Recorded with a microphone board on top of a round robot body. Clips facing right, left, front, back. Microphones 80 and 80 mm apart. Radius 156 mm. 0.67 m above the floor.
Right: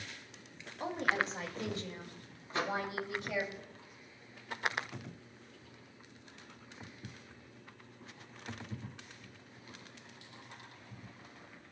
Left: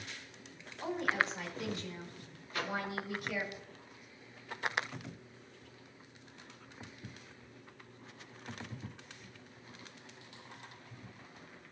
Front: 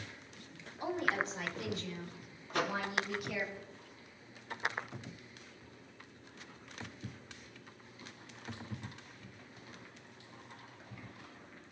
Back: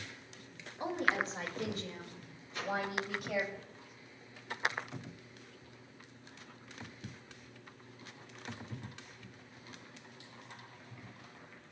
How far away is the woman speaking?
About 3 m.